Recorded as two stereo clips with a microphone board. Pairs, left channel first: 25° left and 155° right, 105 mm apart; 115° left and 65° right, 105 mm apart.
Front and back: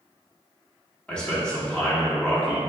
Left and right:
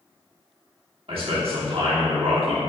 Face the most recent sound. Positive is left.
turn(degrees=-55)